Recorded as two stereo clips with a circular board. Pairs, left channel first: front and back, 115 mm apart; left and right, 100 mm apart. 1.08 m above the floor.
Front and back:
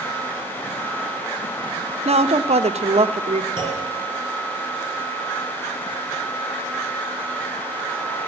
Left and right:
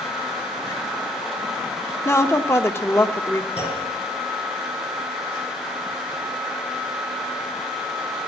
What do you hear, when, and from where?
2.0 s a woman speaking: 150° left, 0.8 m
3.6 s a clunk: 15° right, 6 m